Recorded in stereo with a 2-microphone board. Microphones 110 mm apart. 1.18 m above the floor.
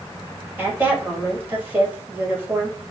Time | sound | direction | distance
0.6 | a woman speaking | 20° right (ahead or behind) | 1.7 m